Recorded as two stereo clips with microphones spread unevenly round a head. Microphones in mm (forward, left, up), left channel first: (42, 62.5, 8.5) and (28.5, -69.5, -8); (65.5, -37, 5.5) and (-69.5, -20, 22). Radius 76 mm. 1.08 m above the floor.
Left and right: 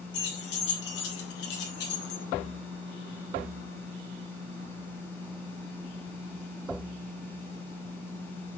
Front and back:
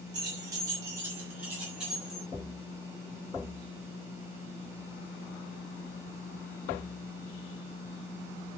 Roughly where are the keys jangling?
Left.